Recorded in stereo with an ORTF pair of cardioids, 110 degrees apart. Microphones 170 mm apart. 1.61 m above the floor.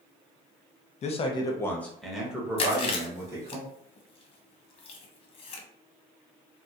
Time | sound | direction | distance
1.0 | a man speaking | 40° left | 0.8 m
2.6 | chewing | 35° left | 0.9 m